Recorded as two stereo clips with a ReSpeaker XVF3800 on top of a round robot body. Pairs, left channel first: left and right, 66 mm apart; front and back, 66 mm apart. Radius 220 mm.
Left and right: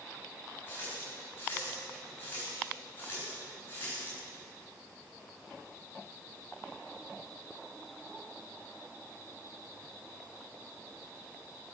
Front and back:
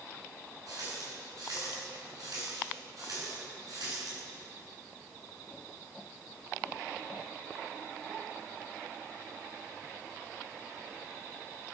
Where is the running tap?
150° left, 10 m.